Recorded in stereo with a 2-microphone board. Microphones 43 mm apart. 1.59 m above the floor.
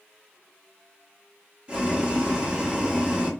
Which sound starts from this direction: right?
Boiling, at 1.7 s.